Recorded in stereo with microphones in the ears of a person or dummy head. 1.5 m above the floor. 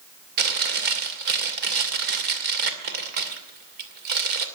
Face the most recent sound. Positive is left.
turn(degrees=-55)  # may be behind; listen again after turning